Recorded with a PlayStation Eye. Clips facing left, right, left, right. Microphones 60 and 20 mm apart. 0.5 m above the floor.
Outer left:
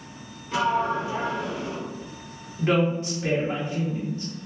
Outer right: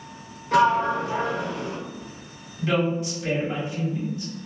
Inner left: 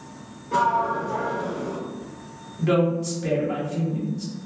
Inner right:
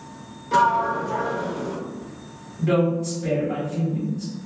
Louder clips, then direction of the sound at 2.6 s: Outer left 1 dB, even; 35° left (ahead or behind).